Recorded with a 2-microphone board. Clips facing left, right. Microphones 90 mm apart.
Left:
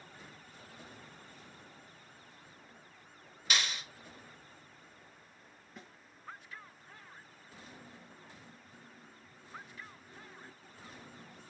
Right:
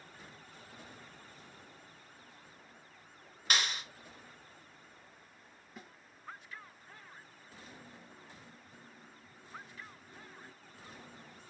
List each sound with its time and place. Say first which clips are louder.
3.5 s a clap: right 1 dB; 45° right (ahead or behind), 1.8 m
5.8 s a snare drum: right 1 dB; 5° right (ahead or behind), 2.0 m